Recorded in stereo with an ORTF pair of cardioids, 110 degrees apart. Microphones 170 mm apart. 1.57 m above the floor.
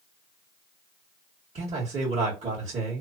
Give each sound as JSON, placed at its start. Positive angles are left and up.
{"t": 1.6, "sound": "a man speaking", "azimuth_deg": -35, "distance_m": 1.5}